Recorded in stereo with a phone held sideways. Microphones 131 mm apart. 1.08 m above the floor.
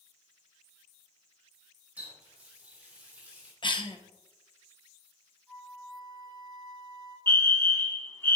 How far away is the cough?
About 0.7 m.